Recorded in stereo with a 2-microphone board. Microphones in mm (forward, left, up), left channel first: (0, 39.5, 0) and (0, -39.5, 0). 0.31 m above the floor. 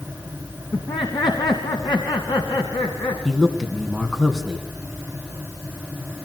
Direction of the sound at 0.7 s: 70° left (ahead or behind).